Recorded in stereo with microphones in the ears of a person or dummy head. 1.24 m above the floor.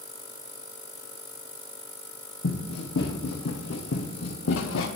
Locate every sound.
2.4 s running footsteps: 45° left (ahead or behind), 3 m; by 4.9 s 55° left (ahead or behind), 2 m